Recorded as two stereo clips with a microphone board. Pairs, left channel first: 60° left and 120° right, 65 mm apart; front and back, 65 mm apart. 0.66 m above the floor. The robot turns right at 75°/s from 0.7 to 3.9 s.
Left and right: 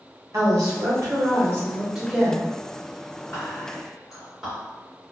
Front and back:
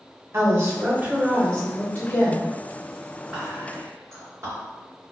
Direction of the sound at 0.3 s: 140° right.